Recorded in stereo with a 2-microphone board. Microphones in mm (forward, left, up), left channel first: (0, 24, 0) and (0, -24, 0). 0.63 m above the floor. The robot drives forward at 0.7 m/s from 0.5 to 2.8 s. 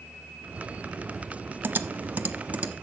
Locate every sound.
1.6 s typing on a keyboard: 50° right (ahead or behind), 0.6 m; by 2.7 s 25° right (ahead or behind), 1.1 m